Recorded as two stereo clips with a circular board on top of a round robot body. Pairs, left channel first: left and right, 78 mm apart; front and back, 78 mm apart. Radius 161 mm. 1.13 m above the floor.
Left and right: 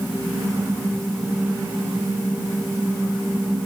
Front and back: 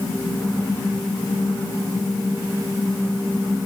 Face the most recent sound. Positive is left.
No sound to turn to.